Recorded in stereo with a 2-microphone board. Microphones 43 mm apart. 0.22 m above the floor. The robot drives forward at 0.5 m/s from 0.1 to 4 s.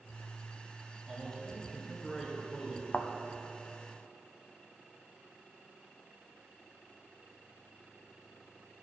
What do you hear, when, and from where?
1.1 s a man speaking: 15° left (ahead or behind), 1.8 m; by 2.8 s 10° left (ahead or behind), 2.5 m
2.9 s a thud: 40° left (ahead or behind), 0.6 m; by 3.1 s 35° left (ahead or behind), 0.6 m